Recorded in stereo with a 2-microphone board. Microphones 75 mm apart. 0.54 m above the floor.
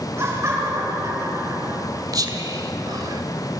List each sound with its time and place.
0.2 s laughter: 35° right (ahead or behind), 7 m; by 1.8 s 50° right (ahead or behind), 7.5 m
2.1 s whispering: 55° right (ahead or behind), 2 m